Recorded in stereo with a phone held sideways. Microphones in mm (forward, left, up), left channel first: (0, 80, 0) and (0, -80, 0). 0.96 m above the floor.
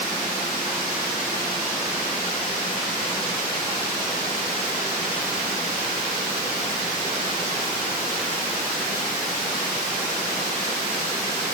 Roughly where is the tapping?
No tapping in this recording.